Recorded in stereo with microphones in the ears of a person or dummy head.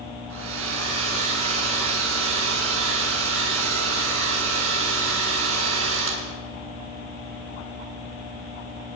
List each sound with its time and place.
0.3 s a hair dryer: 80° right, 8.5 m